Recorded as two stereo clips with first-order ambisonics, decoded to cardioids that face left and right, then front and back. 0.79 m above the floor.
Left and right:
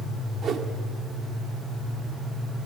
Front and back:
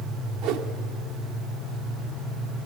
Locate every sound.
0.4 s a whoosh: 150° right, 1.2 m